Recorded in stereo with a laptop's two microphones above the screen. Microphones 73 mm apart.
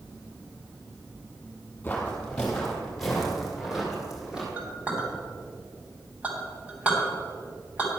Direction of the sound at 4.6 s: 20° right (ahead or behind).